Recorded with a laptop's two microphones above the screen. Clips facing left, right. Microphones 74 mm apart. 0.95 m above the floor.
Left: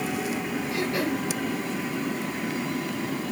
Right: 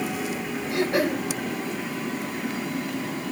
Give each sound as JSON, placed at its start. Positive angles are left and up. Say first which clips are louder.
{"t": 0.7, "sound": "throat clearing", "louder": "right 5 dB", "side_deg": -75, "distance_m": 4.5}